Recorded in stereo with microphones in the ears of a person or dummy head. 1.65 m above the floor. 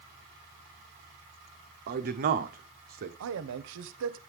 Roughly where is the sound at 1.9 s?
Right.